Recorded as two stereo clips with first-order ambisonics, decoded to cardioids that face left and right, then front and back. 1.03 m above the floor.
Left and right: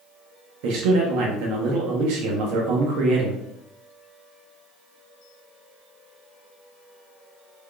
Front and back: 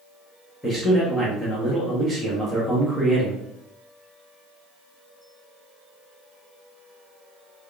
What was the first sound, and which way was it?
A man speaking, 80° right.